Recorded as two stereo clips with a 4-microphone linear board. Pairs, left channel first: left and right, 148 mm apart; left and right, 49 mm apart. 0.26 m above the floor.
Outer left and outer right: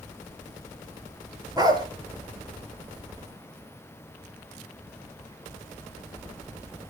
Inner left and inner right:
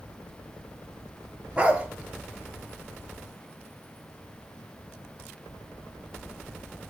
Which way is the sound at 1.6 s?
25° right (ahead or behind).